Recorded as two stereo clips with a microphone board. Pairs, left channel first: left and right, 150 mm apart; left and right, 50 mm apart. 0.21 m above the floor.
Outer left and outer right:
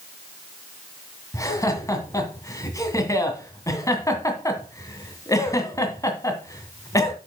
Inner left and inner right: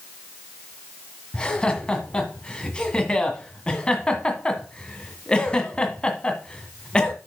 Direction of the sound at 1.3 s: 20° left (ahead or behind).